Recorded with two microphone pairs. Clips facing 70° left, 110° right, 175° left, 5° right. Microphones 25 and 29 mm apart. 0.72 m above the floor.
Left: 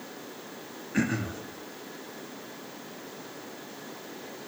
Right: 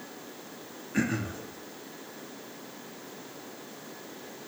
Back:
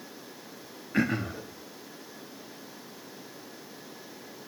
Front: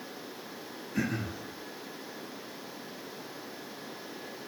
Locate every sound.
0.9 s throat clearing: 150° left, 0.8 m